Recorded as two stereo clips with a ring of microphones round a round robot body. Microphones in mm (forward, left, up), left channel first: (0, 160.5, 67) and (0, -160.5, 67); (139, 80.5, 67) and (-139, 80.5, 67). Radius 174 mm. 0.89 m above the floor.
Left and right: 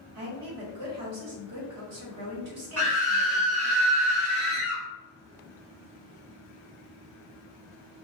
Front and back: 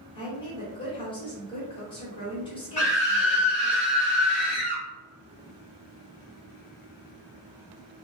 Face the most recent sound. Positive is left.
turn(degrees=-60)